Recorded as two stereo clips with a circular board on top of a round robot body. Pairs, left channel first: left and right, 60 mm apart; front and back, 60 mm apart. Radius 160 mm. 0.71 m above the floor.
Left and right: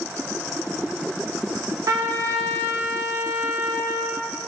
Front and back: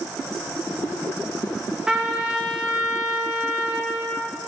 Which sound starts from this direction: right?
A trumpet, at 1.9 s.